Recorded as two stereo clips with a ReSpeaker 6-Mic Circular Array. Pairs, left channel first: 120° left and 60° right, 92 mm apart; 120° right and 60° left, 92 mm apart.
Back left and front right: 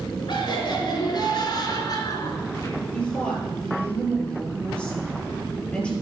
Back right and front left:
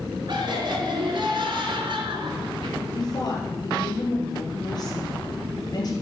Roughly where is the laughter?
Left.